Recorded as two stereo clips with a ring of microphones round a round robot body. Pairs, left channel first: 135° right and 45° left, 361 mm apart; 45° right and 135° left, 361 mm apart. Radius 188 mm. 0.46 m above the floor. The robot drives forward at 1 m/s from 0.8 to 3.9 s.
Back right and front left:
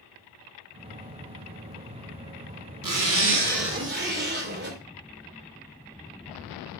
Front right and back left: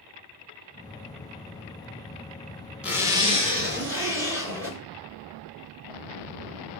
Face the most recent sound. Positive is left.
turn(degrees=95)